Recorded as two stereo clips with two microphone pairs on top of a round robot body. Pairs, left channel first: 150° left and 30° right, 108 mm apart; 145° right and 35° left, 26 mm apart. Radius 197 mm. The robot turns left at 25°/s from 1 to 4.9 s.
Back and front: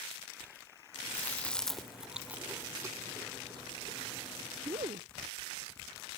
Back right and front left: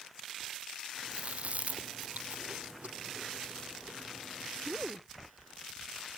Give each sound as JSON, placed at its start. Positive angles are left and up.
{"t": 1.1, "sound": "chewing", "azimuth_deg": 75}